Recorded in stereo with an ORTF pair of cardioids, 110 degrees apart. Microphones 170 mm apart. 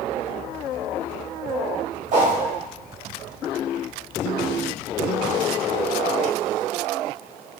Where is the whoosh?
45° right, 0.8 m.